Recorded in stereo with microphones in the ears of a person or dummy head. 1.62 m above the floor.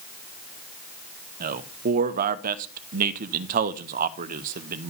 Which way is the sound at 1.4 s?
45° right (ahead or behind).